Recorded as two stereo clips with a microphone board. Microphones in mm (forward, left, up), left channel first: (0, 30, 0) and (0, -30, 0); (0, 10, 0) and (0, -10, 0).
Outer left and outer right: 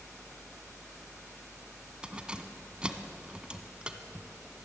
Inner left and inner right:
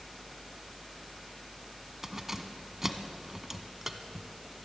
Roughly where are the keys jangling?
Centre.